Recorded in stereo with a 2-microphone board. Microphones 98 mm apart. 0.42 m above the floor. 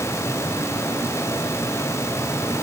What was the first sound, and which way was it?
Only background noise.